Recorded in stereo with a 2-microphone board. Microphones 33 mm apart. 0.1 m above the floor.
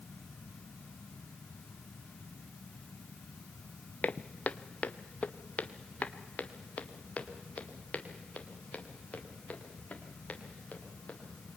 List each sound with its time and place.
4.0 s footsteps: 50° left (ahead or behind), 0.6 m; by 11.2 s 45° left (ahead or behind), 4 m